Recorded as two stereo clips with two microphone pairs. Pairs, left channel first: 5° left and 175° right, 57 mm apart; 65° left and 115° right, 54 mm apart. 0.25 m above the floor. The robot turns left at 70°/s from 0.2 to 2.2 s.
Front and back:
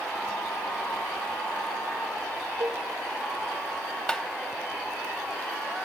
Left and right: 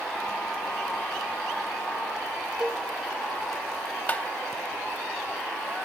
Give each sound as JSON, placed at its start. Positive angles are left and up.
{"t": 2.6, "sound": "a cowbell", "azimuth_deg": 175, "distance_m": 1.0}
{"t": 4.1, "sound": "tapping", "azimuth_deg": 65, "distance_m": 0.7}